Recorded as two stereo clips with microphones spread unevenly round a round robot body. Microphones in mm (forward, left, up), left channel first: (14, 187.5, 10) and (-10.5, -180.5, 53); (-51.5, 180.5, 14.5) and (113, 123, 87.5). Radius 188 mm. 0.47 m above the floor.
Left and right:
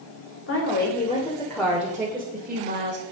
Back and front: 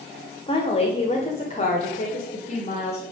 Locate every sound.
0.5 s a woman speaking: 130° left, 2 m; by 3.0 s 155° right, 2.5 m